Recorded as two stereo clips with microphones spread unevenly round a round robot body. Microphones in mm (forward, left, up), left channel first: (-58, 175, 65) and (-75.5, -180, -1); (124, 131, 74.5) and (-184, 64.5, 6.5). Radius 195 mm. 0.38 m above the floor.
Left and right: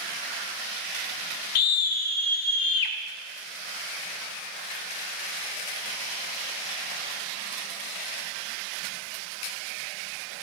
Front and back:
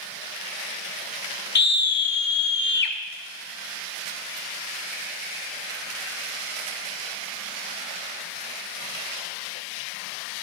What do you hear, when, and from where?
1.6 s a scream: 70° left, 1.8 m